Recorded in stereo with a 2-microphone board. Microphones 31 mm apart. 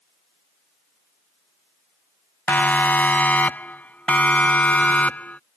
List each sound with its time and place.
2.5 s a siren: 70° left (ahead or behind); by 5.4 s 55° left (ahead or behind)